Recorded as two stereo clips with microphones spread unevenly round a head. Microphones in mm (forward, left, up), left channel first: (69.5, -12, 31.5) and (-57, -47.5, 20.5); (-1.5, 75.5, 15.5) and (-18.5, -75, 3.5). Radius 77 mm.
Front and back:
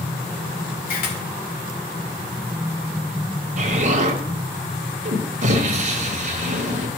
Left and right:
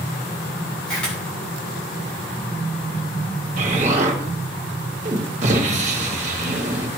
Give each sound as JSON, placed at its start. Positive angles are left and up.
{"t": 0.9, "sound": "a camera shutter", "azimuth_deg": 0, "distance_m": 2.5}
{"t": 3.6, "sound": "an explosion", "azimuth_deg": -140, "distance_m": 1.4}